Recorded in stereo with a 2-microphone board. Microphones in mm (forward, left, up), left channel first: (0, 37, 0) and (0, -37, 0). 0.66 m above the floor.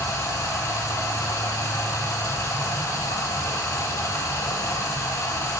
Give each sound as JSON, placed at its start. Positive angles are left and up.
{"t": 0.0, "sound": "running water", "side_deg": 40, "distance_m": 1.2}